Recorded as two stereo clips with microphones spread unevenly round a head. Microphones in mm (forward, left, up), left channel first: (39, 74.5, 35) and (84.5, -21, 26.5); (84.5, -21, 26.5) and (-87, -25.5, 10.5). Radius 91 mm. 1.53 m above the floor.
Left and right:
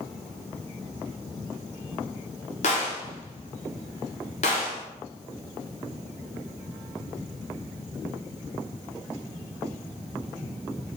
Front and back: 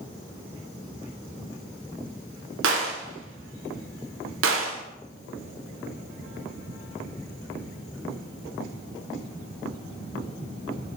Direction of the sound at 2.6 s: 165° left.